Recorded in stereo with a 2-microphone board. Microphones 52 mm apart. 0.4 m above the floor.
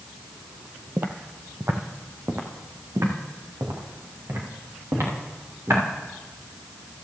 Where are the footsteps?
45° right (ahead or behind), 0.7 m; by 5.8 s 70° right (ahead or behind), 4.5 m.